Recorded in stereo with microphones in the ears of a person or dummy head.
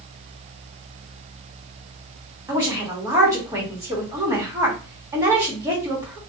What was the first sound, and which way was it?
A woman speaking, 15° right (ahead or behind).